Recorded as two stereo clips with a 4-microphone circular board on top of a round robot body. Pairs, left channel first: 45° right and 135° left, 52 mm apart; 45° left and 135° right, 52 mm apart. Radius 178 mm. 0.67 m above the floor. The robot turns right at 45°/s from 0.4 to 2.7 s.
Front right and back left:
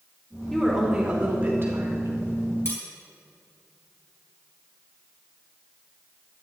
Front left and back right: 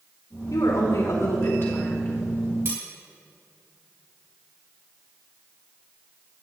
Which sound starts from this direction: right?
Cutlery clinking, at 2.6 s.